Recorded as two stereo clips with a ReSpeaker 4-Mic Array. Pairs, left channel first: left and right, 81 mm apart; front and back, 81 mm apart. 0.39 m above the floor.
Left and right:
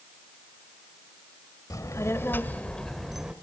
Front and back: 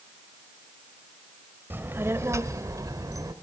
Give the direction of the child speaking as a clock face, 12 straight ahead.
8 o'clock.